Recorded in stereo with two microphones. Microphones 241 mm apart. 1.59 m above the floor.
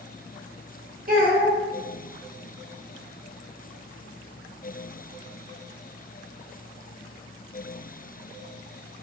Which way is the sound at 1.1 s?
40° right (ahead or behind).